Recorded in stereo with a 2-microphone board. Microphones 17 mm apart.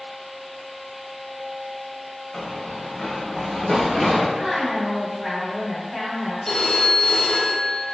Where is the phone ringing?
20° left (ahead or behind), 0.7 m.